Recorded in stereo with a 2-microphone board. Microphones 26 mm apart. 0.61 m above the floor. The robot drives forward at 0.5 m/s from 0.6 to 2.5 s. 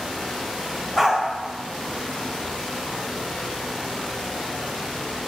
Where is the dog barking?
15° right (ahead or behind), 0.9 m; by 1.2 s 10° right (ahead or behind), 1.0 m.